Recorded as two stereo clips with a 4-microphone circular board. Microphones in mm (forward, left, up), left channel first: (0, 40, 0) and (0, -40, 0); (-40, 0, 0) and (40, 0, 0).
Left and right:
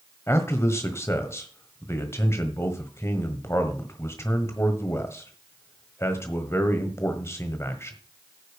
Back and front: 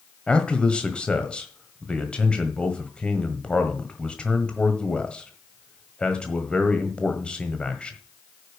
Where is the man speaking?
110° left, 1.4 m.